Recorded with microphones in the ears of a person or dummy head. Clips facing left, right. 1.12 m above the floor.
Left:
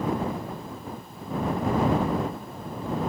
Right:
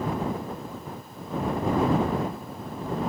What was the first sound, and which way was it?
Only background noise.